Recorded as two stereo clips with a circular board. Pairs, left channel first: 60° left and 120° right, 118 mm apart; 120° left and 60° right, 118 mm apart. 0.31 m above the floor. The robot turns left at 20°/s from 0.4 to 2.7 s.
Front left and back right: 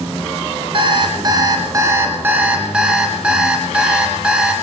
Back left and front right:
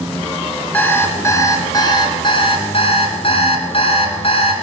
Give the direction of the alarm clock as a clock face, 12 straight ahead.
5 o'clock.